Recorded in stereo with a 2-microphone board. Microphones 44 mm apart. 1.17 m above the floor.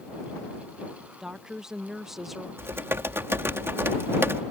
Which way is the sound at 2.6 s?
70° right (ahead or behind).